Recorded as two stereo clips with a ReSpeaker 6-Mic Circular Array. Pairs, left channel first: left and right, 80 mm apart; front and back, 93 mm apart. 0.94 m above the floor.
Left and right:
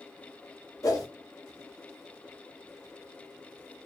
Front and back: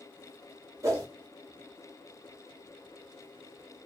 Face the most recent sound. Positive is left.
turn(degrees=130)